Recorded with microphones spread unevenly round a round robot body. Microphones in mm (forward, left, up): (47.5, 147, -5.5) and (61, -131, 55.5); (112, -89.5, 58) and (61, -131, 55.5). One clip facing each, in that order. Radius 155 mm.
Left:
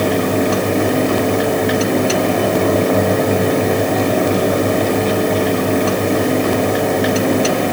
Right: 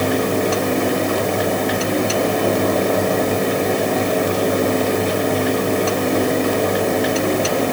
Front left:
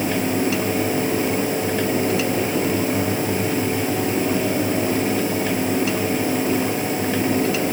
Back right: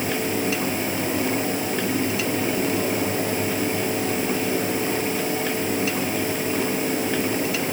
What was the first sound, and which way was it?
Only background noise.